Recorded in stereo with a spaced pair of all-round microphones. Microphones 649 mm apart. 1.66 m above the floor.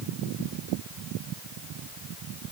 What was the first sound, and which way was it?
Only background noise.